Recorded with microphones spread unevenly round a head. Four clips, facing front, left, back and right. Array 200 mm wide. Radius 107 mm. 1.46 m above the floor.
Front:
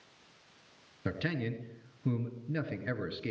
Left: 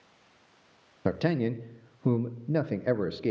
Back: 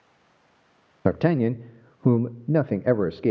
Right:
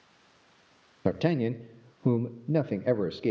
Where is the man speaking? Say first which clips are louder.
Right 1 dB, back 14 dB; 170° right, 1.0 m.